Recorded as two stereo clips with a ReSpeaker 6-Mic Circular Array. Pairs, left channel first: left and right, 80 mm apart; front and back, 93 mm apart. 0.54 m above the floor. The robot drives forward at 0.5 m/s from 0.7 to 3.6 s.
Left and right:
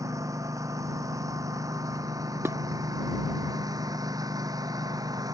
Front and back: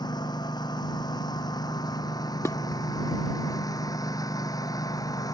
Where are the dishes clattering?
45° right; by 2.6 s 50° right.